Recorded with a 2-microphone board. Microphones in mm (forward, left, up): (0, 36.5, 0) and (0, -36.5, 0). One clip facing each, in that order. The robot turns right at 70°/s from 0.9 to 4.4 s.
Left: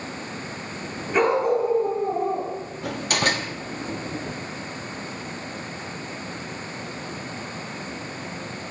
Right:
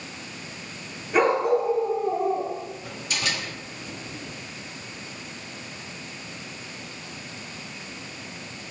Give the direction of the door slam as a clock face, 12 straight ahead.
9 o'clock.